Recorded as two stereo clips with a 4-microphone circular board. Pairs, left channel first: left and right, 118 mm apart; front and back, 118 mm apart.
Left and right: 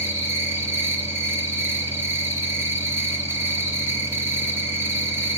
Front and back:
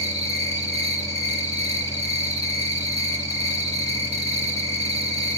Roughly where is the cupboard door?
I don't hear a cupboard door.